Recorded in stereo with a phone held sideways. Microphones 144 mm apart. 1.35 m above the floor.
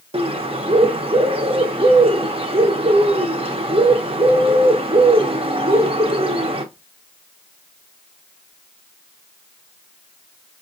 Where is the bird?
40° right (ahead or behind), 0.6 m.